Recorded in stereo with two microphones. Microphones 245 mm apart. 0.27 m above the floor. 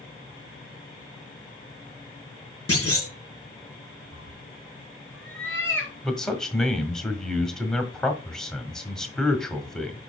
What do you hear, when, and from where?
2.7 s a clunk: 70° left (ahead or behind), 4.5 m
4.1 s a cat meowing: 60° left (ahead or behind), 2.5 m
6.0 s a man speaking: centre (ahead or behind), 1.6 m